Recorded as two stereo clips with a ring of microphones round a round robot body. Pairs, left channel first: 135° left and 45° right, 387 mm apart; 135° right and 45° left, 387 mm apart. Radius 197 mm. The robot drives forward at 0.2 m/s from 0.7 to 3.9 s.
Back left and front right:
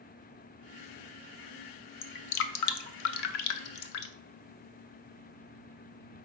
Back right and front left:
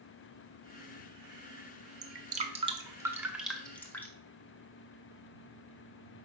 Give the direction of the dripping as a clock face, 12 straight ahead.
8 o'clock.